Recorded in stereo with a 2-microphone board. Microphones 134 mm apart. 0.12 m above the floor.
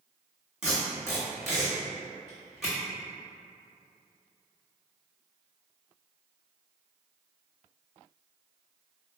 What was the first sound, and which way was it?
Tape being pulled, centre (ahead or behind).